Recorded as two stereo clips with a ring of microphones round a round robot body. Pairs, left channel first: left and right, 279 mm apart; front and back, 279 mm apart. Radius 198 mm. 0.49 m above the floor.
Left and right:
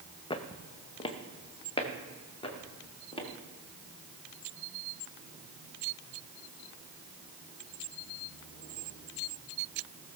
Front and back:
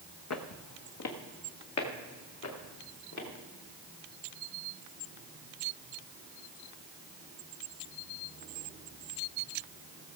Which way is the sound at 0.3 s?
20° left.